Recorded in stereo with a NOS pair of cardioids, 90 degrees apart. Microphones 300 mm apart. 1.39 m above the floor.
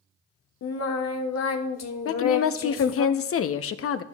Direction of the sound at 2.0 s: 50° left.